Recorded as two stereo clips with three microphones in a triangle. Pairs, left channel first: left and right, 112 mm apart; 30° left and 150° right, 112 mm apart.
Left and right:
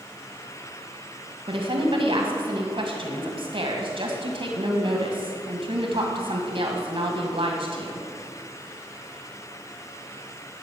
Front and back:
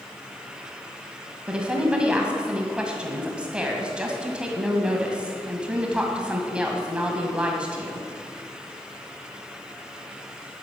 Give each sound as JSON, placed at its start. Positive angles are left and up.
{"t": 1.5, "sound": "a woman speaking", "azimuth_deg": -70, "distance_m": 2.0}